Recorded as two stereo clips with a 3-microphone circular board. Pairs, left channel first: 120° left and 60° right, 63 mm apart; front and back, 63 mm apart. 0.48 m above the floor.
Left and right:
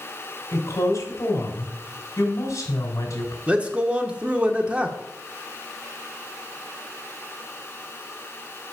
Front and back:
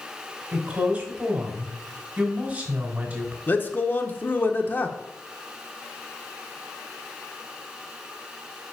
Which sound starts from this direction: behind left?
A woman speaking, at 0.5 s.